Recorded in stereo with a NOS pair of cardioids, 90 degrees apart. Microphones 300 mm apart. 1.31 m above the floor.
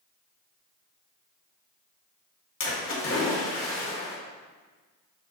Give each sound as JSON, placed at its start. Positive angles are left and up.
{"t": 2.6, "sound": "a splash", "azimuth_deg": 45, "distance_m": 3.0}